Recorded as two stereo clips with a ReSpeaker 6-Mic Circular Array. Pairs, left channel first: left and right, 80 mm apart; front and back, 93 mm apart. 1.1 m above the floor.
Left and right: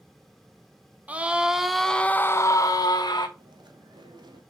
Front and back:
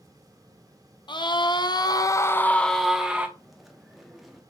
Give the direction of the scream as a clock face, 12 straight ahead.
1 o'clock.